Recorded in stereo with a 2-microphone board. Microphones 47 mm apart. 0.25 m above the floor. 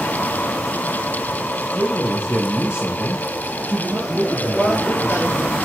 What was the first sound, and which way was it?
A man speaking, 55° left (ahead or behind).